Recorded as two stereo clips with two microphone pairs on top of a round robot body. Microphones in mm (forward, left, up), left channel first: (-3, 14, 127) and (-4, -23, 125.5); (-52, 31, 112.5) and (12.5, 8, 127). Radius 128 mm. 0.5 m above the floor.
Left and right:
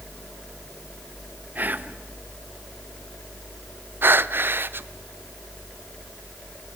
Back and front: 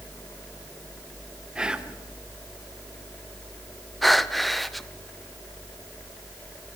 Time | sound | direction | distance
1.6 | whispering | 105° right | 2 m
4.0 | breathing | 115° right | 0.7 m